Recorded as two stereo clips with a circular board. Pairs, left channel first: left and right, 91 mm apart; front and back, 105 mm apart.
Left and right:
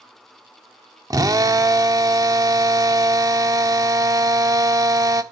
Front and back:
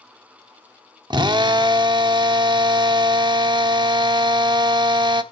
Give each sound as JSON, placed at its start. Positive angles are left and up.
{"t": 1.1, "sound": "a drill", "azimuth_deg": -135, "distance_m": 1.2}